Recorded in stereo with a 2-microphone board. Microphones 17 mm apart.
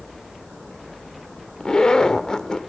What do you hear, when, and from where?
1.6 s a zipper: 45° left (ahead or behind), 0.5 m